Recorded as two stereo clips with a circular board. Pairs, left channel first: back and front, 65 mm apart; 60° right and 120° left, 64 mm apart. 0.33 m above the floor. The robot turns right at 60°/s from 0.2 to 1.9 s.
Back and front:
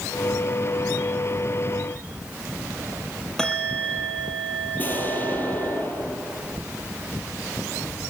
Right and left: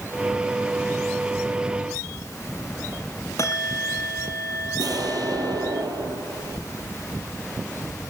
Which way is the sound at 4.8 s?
120° left.